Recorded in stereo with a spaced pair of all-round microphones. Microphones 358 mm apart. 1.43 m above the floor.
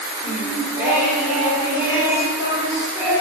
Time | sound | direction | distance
0.2 | singing | 5° right (ahead or behind) | 6 m